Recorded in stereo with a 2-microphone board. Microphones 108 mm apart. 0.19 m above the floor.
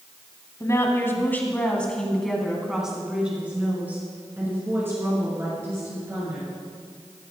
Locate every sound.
0.6 s a woman speaking: 30° left (ahead or behind), 1.4 m; by 6.5 s 25° right (ahead or behind), 3 m